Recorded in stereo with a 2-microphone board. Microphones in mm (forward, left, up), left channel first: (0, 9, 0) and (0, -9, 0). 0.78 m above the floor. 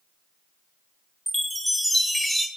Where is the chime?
5° left (ahead or behind), 1.2 m.